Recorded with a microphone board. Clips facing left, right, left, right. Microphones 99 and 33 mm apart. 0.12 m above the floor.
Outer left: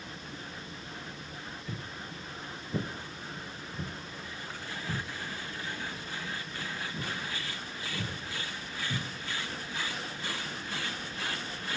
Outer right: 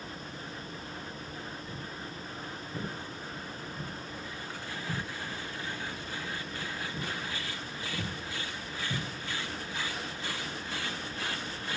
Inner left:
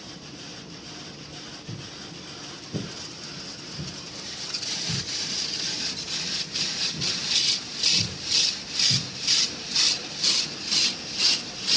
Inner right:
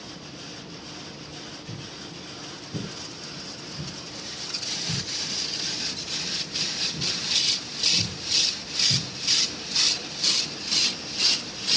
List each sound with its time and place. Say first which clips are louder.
1.7 s footsteps: outer right 1 dB, inner right 1 dB; 70° left (ahead or behind), 2.5 m; by 9.0 s 10° right (ahead or behind), 6.5 m